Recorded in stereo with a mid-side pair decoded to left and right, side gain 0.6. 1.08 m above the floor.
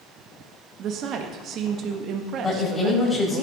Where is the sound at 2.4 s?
5° left, 6 m.